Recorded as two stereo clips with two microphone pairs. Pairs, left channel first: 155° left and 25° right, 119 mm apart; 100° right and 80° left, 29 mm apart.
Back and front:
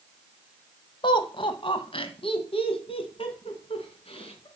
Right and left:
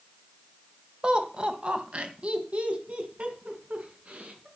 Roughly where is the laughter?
Behind left.